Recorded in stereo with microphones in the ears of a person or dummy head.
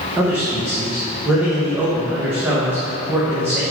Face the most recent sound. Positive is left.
turn(degrees=-10)  # may be behind; listen again after turning